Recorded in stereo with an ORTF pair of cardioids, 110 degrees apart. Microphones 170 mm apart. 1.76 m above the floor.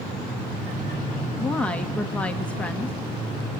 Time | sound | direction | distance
1.4 | a woman speaking | 10° left | 2 m